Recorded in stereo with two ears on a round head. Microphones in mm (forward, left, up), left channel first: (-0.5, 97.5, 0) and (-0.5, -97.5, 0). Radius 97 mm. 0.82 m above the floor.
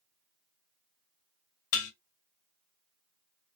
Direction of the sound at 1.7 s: 70° left (ahead or behind).